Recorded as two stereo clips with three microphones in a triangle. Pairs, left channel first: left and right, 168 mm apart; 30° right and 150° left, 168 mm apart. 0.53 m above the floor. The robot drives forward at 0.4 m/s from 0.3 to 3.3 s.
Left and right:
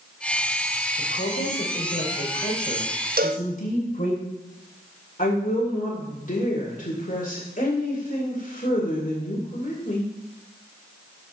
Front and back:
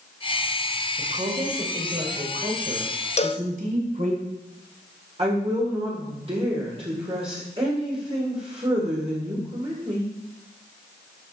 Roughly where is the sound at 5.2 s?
Left.